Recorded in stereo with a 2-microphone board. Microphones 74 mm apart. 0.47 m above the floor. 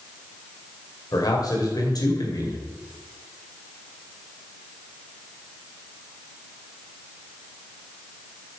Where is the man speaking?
55° left (ahead or behind), 2.5 m.